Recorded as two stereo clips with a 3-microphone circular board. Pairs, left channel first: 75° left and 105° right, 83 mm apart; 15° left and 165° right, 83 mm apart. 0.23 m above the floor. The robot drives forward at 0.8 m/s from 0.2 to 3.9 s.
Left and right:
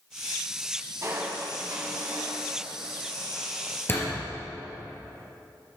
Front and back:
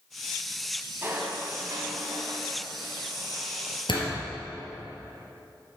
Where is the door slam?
15° left, 3 m.